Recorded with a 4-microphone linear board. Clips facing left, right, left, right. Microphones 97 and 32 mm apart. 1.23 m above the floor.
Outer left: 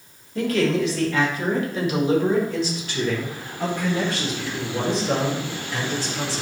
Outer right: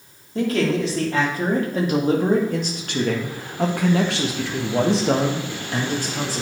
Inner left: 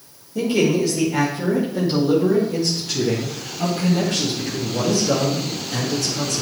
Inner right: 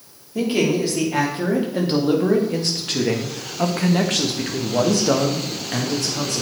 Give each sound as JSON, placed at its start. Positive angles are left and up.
{"t": 0.3, "sound": "a man speaking", "side_deg": -35, "distance_m": 3.0}